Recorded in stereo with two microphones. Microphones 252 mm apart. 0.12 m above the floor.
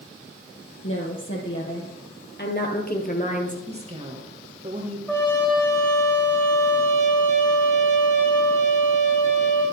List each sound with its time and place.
0.8 s a woman speaking: 55° left (ahead or behind), 3.5 m; by 3.6 s 30° left (ahead or behind), 1.9 m
3.7 s a woman speaking: 25° right (ahead or behind), 2.5 m
5.1 s a trumpet: 5° left (ahead or behind), 4 m